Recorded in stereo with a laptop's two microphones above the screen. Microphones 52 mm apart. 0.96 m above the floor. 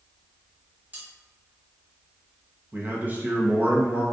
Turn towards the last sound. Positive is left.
turn(degrees=-30)  # may be behind; listen again after turning